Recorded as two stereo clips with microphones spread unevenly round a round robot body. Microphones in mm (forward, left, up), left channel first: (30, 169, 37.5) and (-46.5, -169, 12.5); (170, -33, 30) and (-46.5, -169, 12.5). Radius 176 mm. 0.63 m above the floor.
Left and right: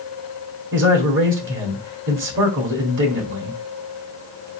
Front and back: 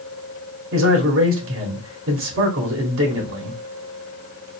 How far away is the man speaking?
About 2.0 m.